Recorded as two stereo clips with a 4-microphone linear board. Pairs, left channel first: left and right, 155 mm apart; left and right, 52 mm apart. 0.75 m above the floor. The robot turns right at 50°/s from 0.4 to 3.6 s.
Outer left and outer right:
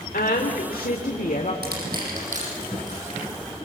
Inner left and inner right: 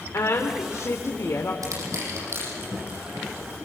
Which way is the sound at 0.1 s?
75° left.